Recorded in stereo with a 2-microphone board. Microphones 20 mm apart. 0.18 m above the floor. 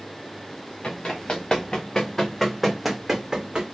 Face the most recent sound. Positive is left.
turn(degrees=-50)  # may be behind; listen again after turning